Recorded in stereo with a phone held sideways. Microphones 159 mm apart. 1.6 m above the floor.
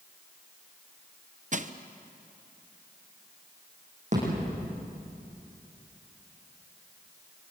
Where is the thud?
50° right (ahead or behind), 9.5 m.